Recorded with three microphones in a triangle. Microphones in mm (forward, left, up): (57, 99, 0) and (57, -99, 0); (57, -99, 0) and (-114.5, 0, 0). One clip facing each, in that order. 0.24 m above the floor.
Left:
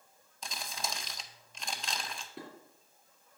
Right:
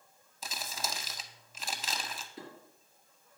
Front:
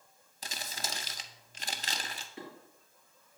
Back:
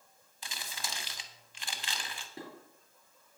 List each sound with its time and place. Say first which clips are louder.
0.4 s crumpling: even, front 3 dB; 5° right, 0.5 m
2.4 s dishes clattering: left 1 dB, even; 105° left, 3 m